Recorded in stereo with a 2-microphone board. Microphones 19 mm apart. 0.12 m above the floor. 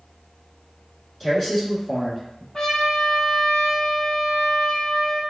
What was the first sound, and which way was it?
A man speaking, 15° left (ahead or behind).